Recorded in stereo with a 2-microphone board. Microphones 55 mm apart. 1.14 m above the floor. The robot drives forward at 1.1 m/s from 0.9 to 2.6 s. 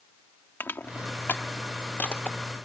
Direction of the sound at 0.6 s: 40° left (ahead or behind).